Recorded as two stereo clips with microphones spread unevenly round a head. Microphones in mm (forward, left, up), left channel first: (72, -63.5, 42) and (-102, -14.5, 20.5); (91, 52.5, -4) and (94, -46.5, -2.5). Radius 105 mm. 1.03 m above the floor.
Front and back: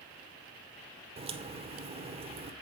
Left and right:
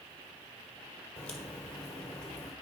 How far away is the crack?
About 0.9 m.